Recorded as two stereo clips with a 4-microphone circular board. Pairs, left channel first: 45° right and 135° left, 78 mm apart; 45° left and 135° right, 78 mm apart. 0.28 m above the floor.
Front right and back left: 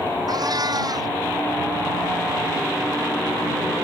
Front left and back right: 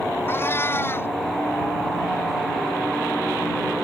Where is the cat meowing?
105° left.